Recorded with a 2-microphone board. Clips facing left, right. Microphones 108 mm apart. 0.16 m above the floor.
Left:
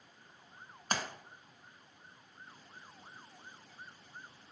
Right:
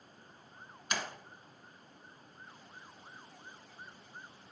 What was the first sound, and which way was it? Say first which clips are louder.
A splash: left 2 dB; 45° left (ahead or behind).